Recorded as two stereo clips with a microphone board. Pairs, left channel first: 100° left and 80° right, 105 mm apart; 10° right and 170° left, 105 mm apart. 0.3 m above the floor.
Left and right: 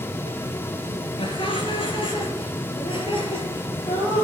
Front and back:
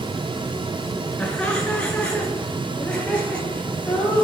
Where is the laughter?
70° left, 4.5 m; by 4.2 s 65° left, 6.5 m.